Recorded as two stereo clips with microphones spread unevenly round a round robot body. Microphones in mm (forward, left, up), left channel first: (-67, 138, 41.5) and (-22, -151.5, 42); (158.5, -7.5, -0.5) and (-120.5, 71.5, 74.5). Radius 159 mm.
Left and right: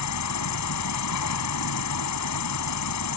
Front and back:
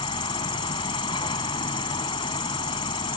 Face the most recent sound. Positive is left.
turn(degrees=60)